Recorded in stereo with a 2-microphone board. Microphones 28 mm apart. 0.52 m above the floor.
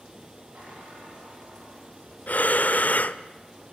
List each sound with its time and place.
0.5 s a squeak: 75° right (ahead or behind), 9 m
2.3 s breathing: 60° left (ahead or behind), 0.6 m